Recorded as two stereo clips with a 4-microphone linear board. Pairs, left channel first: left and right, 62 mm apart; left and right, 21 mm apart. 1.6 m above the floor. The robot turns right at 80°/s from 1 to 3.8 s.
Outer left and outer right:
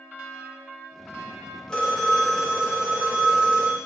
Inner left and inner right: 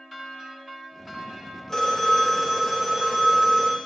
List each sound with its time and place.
1.7 s a phone ringing: 10° left (ahead or behind), 0.9 m; by 3.8 s 15° right (ahead or behind), 0.9 m